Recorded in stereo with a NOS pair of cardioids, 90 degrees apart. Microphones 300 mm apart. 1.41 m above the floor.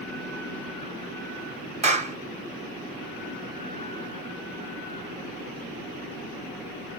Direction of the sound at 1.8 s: 20° right.